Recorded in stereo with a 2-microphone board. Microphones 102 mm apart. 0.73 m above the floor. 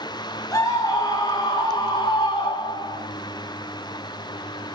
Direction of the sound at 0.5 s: 30° left (ahead or behind).